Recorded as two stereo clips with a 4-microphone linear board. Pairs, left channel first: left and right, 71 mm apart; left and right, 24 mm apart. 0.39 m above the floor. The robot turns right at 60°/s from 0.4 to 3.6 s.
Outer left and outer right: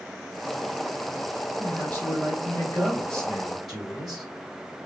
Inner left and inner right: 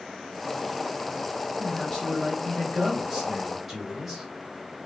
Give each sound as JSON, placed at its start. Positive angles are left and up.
{"t": 1.6, "sound": "a man speaking", "side_deg": 25, "distance_m": 1.6}